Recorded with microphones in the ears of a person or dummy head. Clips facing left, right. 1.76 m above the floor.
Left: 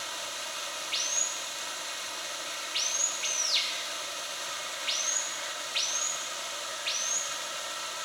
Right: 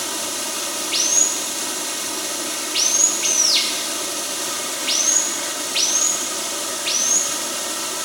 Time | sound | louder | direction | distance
0.0 | running water | right 13 dB | 70° right (ahead or behind) | ?